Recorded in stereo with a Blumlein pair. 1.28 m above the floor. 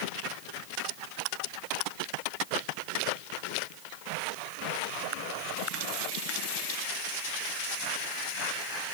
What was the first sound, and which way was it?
Only background noise.